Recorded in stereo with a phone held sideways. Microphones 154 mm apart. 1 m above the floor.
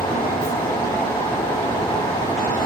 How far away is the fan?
About 0.9 m.